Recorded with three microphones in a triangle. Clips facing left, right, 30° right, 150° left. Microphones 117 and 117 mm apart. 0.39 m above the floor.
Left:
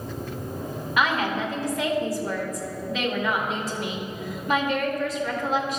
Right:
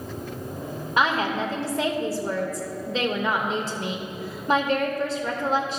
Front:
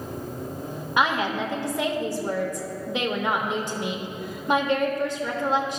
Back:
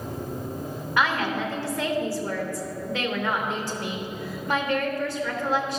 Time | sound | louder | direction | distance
1.0 | a woman speaking | right 1 dB, front 1 dB | 80° right | 1.0 m